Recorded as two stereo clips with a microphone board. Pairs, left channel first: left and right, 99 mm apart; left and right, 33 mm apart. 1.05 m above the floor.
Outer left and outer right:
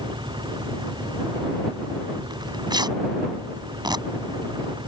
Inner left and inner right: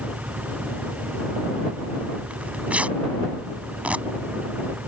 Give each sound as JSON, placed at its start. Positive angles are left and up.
{"t": 0.0, "sound": "an engine running", "side_deg": -50}
{"t": 2.3, "sound": "tearing paper", "side_deg": -45}